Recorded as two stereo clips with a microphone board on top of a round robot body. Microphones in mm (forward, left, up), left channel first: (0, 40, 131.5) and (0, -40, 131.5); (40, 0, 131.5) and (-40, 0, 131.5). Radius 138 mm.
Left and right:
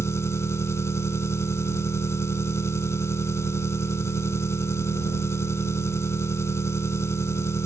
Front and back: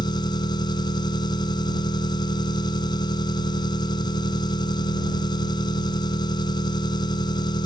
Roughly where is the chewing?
I don't hear chewing.